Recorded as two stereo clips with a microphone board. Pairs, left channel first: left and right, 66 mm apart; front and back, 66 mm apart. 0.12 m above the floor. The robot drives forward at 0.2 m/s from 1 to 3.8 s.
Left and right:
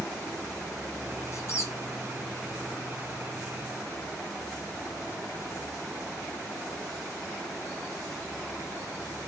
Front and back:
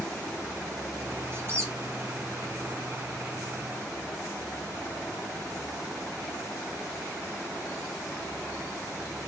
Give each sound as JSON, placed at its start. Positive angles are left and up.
{"t": 1.3, "sound": "a squeak", "azimuth_deg": 130, "distance_m": 0.9}